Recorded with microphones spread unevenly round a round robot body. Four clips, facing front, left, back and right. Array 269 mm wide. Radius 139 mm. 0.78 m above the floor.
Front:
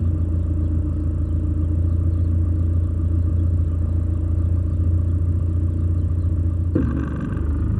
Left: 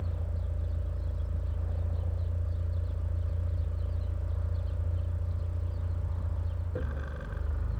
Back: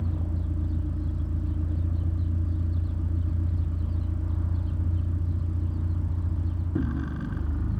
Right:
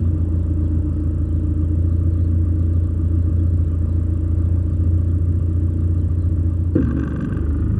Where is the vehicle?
75° right.